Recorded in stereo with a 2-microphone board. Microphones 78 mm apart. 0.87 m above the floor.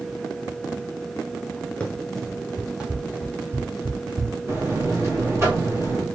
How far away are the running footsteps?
About 2.5 m.